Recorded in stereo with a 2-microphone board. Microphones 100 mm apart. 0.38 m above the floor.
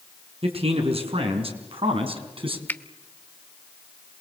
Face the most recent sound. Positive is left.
turn(degrees=20)  # may be behind; listen again after turning